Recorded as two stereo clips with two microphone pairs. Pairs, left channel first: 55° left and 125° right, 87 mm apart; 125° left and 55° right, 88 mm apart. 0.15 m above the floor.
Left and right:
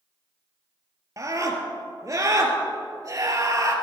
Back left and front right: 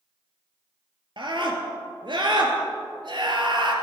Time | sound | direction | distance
1.2 | a scream | 75° right | 2.5 m